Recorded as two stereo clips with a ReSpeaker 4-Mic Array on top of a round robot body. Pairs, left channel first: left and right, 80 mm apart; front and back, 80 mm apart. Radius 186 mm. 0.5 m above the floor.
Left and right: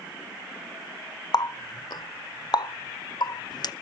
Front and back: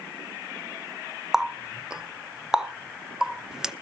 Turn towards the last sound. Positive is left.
turn(degrees=100)